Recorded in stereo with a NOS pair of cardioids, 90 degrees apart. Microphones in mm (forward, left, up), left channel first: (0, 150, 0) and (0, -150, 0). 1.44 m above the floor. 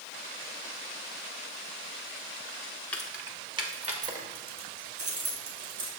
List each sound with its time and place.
2.9 s keys jangling: 5° left, 1.1 m; by 5.9 s 45° right, 3.5 m